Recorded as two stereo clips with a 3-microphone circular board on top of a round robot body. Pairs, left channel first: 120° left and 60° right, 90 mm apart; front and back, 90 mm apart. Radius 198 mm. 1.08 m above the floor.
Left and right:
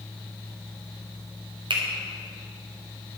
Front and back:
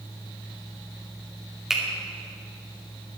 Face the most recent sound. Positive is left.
turn(degrees=-95)